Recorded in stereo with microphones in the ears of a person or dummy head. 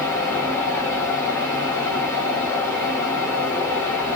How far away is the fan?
About 1.8 m.